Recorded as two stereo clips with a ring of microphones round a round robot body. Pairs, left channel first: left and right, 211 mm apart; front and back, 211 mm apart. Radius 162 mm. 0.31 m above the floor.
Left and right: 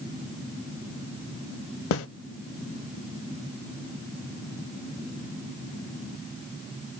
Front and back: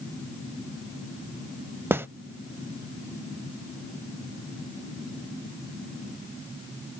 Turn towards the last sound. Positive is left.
turn(degrees=100)